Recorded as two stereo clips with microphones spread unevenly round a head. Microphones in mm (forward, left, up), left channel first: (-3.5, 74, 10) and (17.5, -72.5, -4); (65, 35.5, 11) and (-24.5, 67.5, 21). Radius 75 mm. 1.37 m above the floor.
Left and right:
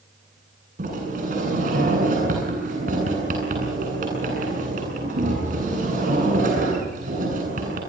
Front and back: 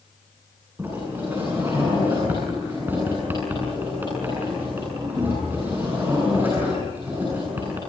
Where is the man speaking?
I don't hear a man speaking.